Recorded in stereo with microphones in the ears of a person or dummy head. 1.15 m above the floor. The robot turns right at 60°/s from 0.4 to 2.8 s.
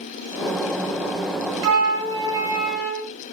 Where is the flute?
90° right, 0.7 m; by 3.1 s 20° right, 0.7 m.